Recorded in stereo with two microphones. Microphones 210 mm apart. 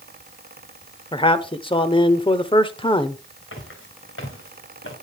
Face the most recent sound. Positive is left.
turn(degrees=70)  # may be behind; listen again after turning